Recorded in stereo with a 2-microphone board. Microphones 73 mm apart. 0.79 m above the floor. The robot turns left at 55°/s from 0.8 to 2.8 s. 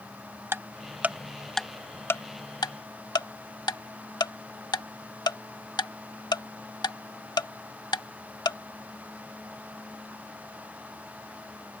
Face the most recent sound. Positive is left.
turn(degrees=70)  # may be behind; listen again after turning